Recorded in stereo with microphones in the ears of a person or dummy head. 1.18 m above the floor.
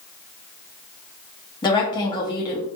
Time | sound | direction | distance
1.6 | a woman speaking | 20° left (ahead or behind) | 0.7 m